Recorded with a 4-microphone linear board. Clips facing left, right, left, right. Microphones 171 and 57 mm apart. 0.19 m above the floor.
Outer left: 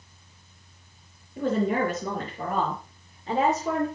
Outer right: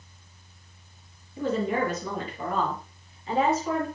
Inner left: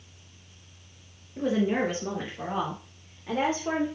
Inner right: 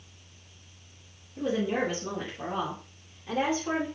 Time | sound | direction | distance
1.4 | a woman speaking | 50° left (ahead or behind) | 3.5 m